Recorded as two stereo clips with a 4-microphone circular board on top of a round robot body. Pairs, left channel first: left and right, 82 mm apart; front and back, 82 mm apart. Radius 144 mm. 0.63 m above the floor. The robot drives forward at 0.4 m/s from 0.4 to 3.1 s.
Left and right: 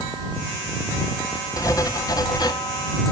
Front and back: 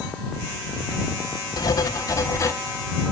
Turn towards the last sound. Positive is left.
turn(degrees=65)